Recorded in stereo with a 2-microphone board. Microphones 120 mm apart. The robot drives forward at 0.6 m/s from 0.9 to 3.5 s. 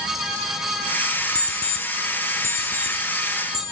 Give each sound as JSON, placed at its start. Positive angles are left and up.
{"t": 1.4, "sound": "an alarm clock", "side_deg": 35, "distance_m": 1.0}